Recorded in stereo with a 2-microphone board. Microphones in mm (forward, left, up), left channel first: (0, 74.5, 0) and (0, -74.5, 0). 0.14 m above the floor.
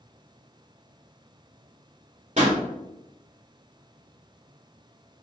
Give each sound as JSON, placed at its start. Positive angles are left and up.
{"t": 2.4, "sound": "a pop", "side_deg": -50, "distance_m": 1.5}